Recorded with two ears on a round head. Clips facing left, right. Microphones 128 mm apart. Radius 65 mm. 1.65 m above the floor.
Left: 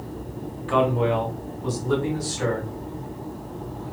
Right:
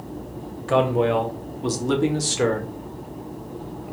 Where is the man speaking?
45° right (ahead or behind), 1.4 m; by 2.7 s 80° right, 1.6 m.